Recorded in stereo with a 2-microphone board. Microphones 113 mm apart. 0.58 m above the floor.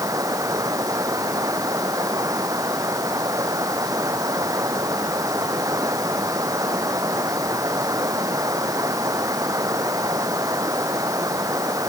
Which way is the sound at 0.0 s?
30° right (ahead or behind).